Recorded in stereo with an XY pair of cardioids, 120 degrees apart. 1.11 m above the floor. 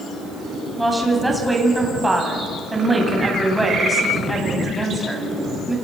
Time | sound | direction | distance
0.8 | a woman speaking | 10° right | 8 m